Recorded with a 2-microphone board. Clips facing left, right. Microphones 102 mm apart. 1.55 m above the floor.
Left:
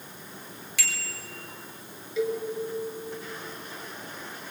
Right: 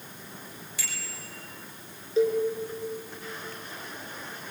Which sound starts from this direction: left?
A bicycle bell, at 0.8 s.